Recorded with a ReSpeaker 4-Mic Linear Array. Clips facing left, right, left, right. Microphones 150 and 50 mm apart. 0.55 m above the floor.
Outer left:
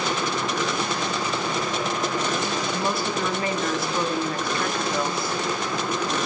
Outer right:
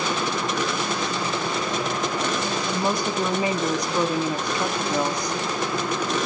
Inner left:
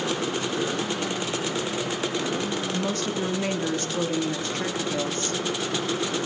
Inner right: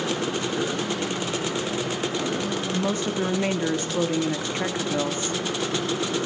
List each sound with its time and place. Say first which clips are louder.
2.7 s a woman speaking: outer right 2 dB, inner right 2 dB; 20° right (ahead or behind), 0.6 m